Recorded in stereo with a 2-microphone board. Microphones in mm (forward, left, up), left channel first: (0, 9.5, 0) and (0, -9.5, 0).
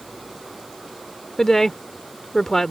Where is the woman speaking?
25° left (ahead or behind).